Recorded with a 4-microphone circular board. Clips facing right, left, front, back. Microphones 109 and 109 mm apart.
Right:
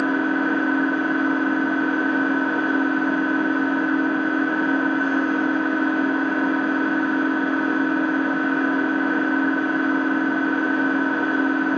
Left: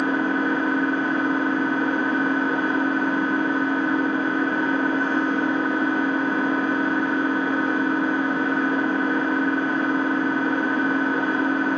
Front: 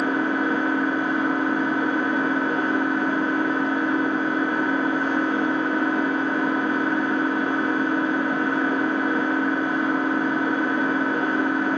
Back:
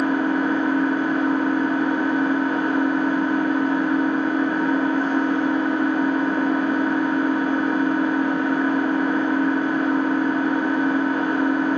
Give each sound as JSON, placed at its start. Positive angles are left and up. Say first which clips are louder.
{"t": 0.0, "sound": "an engine running", "louder": "right 1 dB, back 2 dB", "azimuth_deg": 55, "distance_m": 1.4}